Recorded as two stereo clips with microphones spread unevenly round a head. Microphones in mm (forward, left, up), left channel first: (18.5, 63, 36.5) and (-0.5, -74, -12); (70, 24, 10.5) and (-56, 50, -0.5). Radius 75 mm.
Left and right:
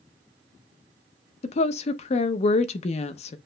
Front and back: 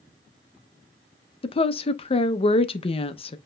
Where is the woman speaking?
35° left, 0.6 m.